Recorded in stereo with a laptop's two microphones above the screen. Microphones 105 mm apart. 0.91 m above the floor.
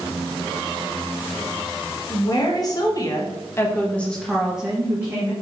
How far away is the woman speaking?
About 1.3 m.